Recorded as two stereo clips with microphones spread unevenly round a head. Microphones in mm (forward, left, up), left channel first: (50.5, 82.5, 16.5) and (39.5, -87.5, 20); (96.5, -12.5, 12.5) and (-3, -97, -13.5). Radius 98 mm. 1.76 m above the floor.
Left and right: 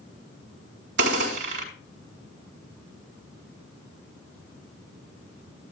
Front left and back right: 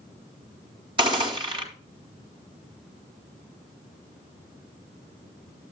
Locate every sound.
1.0 s a gunshot: 85° right, 3.5 m